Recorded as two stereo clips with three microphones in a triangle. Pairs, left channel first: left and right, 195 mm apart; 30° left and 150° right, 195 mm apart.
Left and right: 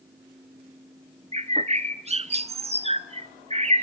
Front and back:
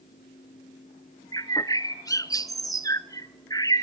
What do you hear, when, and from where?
1.3 s a bird: 40° right, 0.8 m